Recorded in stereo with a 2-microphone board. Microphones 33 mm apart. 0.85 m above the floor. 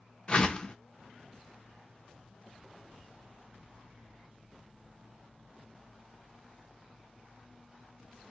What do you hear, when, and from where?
0.3 s a whoosh: 20° left (ahead or behind), 0.5 m